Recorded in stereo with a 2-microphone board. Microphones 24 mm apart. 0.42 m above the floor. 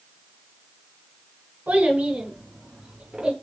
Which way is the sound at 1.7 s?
75° right (ahead or behind).